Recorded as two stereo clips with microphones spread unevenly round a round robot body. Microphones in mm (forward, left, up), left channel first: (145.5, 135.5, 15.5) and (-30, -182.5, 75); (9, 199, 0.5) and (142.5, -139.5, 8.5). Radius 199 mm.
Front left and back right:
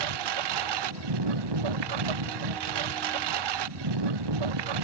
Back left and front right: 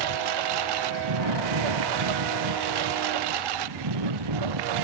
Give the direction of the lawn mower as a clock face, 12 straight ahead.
3 o'clock.